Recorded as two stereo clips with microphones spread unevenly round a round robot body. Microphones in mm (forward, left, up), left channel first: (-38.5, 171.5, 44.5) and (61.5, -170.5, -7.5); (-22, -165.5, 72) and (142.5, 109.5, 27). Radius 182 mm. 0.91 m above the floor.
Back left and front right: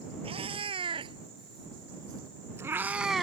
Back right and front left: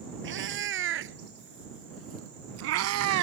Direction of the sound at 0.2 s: 5° left.